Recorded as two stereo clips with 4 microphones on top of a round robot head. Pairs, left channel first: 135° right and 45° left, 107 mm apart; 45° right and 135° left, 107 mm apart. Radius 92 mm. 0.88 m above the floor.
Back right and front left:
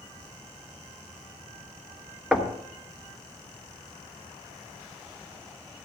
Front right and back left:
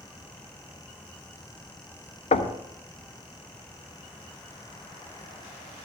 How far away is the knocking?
About 1.2 m.